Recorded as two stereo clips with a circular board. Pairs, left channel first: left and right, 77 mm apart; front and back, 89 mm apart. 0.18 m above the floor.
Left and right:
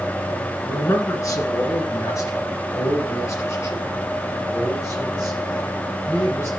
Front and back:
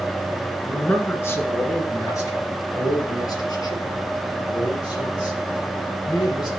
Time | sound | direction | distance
0.7 | a man speaking | 65° left | 1.8 m